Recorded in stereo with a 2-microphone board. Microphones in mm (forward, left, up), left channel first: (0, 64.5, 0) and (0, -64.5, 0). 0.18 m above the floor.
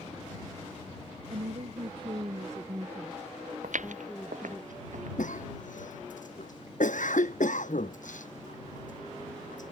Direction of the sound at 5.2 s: 80° left.